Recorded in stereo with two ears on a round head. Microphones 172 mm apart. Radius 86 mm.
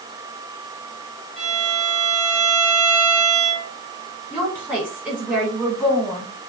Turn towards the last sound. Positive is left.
turn(degrees=0)  # may be behind; listen again after turning